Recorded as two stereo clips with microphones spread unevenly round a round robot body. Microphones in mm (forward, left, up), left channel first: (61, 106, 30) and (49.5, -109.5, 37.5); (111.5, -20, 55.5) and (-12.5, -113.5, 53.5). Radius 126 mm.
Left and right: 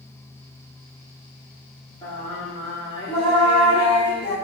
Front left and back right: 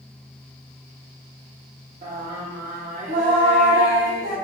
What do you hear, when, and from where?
2.0 s singing: 160° left, 0.9 m